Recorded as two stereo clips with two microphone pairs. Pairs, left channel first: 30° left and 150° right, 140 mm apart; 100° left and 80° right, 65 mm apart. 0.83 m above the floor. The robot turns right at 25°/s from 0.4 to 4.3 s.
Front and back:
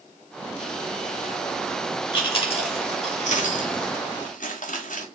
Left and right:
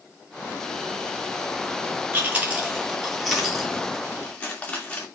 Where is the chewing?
20° right, 1.5 m; by 5.1 s 35° left, 1.5 m.